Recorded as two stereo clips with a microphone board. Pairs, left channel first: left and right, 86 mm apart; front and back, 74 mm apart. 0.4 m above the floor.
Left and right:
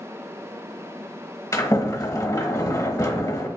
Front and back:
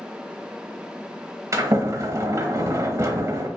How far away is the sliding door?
About 1.0 m.